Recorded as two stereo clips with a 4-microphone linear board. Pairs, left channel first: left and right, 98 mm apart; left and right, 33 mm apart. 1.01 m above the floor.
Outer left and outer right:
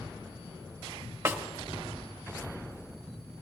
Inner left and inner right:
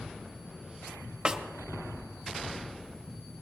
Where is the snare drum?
25° right (ahead or behind), 1.1 m.